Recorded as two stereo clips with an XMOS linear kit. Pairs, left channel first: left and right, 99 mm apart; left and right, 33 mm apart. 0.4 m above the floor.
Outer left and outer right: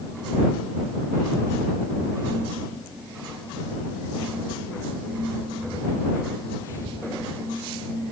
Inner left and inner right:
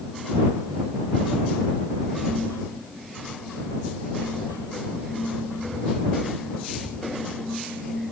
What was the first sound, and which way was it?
Only background noise.